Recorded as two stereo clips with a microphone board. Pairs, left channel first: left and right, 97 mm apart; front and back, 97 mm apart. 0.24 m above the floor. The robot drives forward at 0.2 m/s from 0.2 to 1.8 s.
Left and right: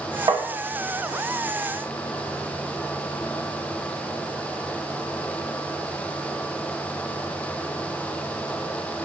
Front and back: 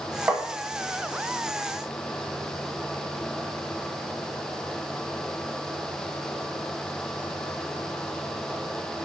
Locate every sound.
0.3 s tapping: 115° right, 0.6 m; by 0.5 s 120° right, 0.6 m